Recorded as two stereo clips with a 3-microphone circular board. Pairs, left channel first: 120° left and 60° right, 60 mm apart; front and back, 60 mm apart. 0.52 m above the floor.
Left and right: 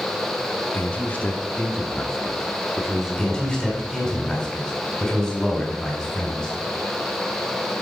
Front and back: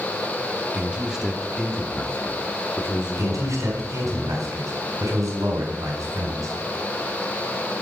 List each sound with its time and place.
0.7 s a man speaking: 140° left, 1.0 m; by 4.2 s 10° left, 1.8 m
3.2 s a man speaking: 150° right, 4 m